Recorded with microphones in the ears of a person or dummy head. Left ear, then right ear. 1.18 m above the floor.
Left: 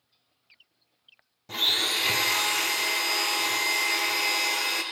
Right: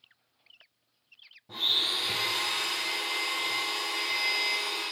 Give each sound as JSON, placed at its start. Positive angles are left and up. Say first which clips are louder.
{"t": 1.5, "sound": "a blender", "louder": "left 2 dB", "side_deg": 55, "distance_m": 0.6}